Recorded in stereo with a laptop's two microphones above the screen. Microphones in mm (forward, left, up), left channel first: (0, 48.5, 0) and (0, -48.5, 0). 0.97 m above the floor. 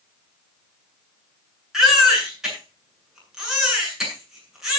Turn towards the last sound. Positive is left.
turn(degrees=-5)  # may be behind; listen again after turning